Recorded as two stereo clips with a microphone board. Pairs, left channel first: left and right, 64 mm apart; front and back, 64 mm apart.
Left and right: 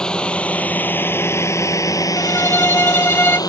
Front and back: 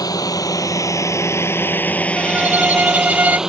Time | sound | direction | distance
0.0 | a drone | 15° left | ?
2.2 | a violin | 130° left | ?